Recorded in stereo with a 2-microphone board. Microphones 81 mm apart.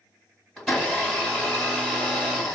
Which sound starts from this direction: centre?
A blender, at 0.6 s.